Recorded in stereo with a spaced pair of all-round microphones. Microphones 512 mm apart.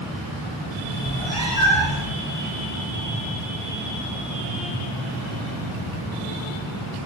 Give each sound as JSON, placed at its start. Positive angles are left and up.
{"t": 1.0, "sound": "a cat meowing", "side_deg": 45, "distance_m": 8.0}